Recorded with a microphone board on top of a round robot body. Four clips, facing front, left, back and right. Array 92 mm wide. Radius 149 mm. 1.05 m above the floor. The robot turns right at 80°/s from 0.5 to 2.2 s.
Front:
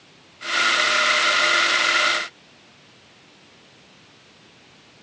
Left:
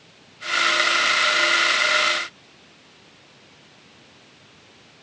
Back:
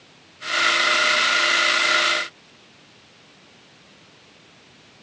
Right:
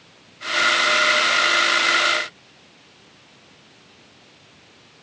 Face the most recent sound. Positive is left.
No sound to turn to.